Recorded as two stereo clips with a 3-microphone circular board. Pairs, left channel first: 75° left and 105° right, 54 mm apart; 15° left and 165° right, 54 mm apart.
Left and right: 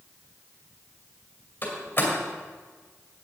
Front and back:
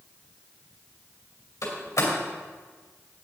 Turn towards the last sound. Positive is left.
turn(degrees=20)